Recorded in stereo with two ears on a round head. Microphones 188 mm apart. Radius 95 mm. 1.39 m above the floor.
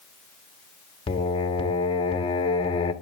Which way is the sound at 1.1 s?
25° left (ahead or behind).